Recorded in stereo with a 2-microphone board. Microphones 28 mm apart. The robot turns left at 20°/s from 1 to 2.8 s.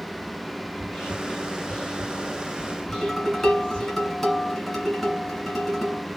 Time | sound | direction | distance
0.7 | whispering | 25° left (ahead or behind) | 1.7 m
2.9 | dishes clattering | 15° left (ahead or behind) | 1.6 m